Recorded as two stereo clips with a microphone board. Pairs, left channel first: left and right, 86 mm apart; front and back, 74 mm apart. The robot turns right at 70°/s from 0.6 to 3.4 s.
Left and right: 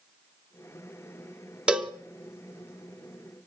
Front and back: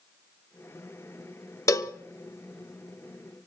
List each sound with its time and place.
1.7 s a cowbell: 20° right, 0.6 m; by 1.9 s straight ahead, 0.6 m